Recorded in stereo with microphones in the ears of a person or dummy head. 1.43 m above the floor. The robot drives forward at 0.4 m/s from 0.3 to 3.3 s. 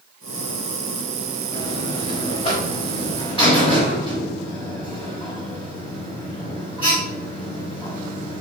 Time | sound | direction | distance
1.5 | a buzzer | 45° left (ahead or behind) | 4 m